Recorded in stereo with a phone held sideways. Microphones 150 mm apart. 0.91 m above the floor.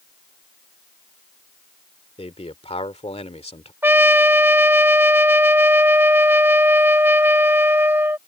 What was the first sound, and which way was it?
A man speaking, 45° left (ahead or behind).